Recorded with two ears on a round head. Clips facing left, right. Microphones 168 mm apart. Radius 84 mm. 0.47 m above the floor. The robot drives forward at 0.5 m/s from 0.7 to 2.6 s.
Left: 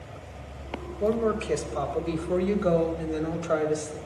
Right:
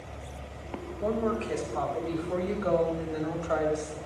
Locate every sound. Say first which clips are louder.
1.0 s a woman speaking: left 4 dB; 55° left (ahead or behind), 2.5 m; by 4.0 s 45° left (ahead or behind), 3 m